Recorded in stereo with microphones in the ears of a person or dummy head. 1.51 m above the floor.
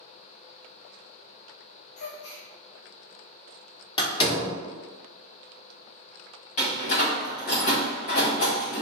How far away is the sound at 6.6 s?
About 0.8 m.